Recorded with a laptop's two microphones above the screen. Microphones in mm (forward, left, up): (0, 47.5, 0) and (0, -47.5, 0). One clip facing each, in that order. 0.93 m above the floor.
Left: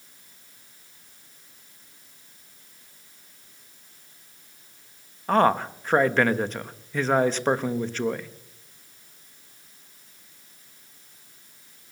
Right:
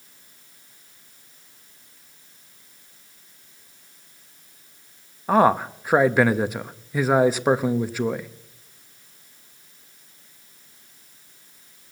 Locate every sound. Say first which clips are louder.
5.3 s a man speaking: right 3 dB; 10° right (ahead or behind), 0.9 m